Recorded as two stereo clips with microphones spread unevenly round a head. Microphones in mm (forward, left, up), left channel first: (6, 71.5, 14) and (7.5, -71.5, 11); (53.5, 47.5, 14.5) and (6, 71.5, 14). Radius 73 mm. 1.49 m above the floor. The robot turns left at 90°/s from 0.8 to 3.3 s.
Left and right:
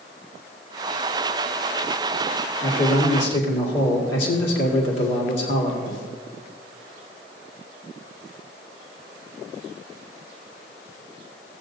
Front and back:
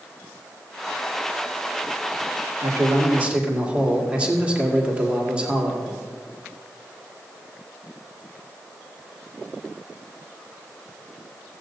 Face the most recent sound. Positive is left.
turn(degrees=85)